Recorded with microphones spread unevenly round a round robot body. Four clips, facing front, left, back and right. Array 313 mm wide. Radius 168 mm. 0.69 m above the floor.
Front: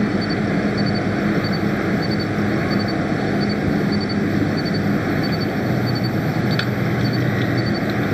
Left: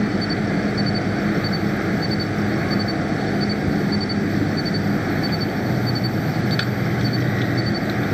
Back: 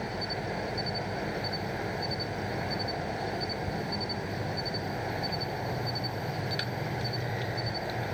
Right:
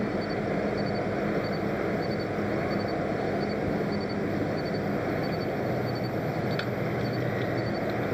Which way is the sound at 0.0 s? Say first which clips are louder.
Left 7 dB, front 15 dB; 25° left.